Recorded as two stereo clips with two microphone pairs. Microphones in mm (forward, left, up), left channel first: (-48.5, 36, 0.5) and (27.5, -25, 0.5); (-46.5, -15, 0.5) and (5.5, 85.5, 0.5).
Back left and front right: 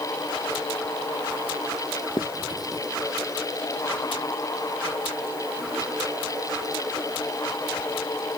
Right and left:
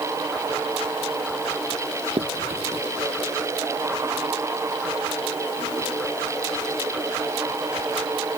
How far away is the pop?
No pop in this recording.